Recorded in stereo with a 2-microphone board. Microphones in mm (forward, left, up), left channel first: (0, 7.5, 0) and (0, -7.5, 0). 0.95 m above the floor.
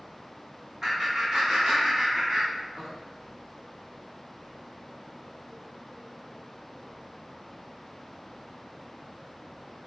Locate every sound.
0.8 s laughter: 25° right (ahead or behind), 1.6 m; by 2.9 s 75° right (ahead or behind), 3 m